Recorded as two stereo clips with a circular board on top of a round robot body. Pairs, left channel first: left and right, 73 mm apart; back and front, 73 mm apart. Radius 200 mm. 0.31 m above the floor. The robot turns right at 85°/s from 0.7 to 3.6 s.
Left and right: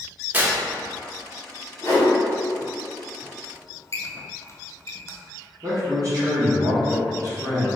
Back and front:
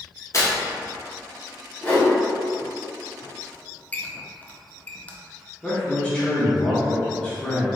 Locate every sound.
0.3 s tearing paper: 150° right, 1.0 m
1.8 s a whoosh: 110° left, 1.8 m; by 2.1 s 135° left, 1.8 m
3.4 s a squeak: 105° left, 0.7 m; by 5.2 s 120° left, 0.7 m
5.6 s a man speaking: 105° right, 1.4 m